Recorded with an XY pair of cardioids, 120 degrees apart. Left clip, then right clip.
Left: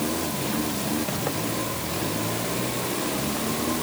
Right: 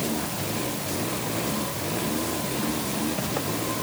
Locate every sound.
Only background noise.